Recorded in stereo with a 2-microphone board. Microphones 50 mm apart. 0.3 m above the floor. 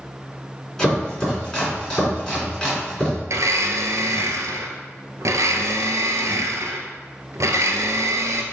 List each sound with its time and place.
0.8 s chopping: 15° left (ahead or behind), 3.5 m
3.3 s a blender: 70° right (ahead or behind), 1.0 m